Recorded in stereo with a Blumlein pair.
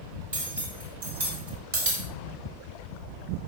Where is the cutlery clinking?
70° right, 4 m.